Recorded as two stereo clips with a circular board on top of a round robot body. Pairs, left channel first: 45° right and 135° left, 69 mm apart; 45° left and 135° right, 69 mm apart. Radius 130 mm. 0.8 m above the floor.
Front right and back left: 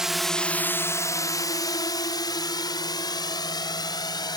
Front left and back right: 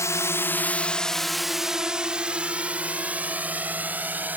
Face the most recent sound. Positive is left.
turn(degrees=-65)